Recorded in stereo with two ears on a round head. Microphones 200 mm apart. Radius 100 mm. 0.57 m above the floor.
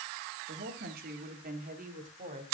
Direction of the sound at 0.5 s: 45° right (ahead or behind).